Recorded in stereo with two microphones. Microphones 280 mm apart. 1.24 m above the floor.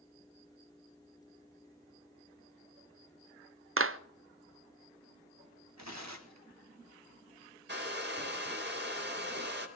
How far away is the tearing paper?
About 1.8 m.